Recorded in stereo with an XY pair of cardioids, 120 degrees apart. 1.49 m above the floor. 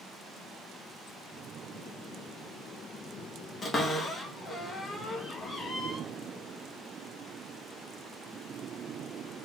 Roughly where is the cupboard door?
Ahead left.